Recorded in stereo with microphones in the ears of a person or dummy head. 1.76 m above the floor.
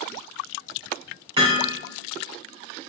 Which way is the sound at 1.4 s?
30° right (ahead or behind).